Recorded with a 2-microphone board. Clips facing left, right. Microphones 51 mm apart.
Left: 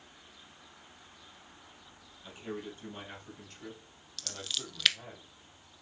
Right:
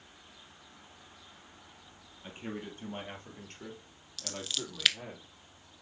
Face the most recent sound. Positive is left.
turn(degrees=0)  # may be behind; listen again after turning